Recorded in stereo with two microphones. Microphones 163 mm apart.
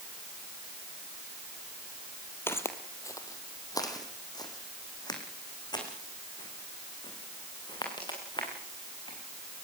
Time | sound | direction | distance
2.5 | footsteps | 15° left (ahead or behind) | 1.8 m